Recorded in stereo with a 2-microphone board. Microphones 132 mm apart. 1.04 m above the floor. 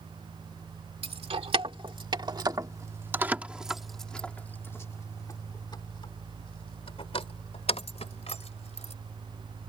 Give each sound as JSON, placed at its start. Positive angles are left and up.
{"t": 1.0, "sound": "keys jangling", "side_deg": -55}